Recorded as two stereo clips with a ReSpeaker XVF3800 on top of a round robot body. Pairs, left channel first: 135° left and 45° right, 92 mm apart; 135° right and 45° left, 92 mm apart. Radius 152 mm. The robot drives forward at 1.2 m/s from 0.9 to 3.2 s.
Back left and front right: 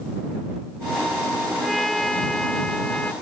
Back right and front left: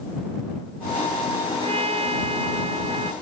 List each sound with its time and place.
1.6 s a trumpet: 45° left; by 3.1 s 55° left